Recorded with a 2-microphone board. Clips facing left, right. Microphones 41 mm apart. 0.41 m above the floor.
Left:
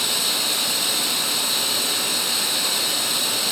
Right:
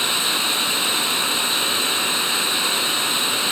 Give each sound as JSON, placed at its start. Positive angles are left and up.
{"t": 0.0, "sound": "running water", "side_deg": -35, "distance_m": 3.0}